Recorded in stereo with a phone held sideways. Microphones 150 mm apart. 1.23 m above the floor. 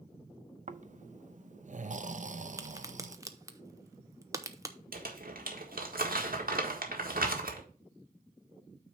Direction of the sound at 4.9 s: 70° right (ahead or behind).